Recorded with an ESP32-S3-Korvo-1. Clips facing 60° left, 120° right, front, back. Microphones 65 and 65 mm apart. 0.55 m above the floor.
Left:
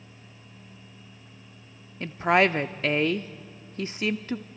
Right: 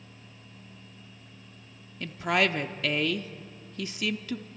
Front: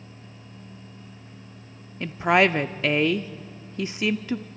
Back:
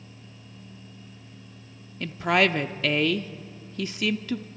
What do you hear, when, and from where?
2.0 s a woman speaking: 50° left, 0.7 m